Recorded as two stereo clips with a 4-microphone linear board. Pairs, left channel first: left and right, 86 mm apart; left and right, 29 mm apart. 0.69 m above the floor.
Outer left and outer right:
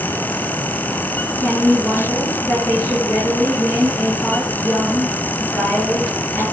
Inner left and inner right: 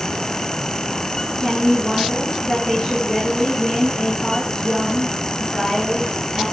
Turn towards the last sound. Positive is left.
turn(degrees=25)  # may be behind; listen again after turning